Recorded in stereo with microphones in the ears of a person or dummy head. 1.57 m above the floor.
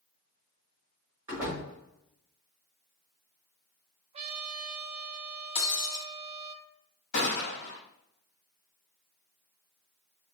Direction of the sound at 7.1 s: 65° left (ahead or behind).